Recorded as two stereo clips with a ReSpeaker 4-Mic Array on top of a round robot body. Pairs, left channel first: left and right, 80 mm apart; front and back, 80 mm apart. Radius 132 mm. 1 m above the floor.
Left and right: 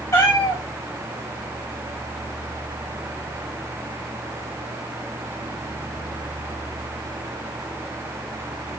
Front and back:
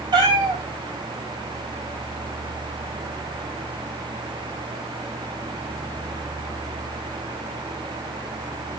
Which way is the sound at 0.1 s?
145° left.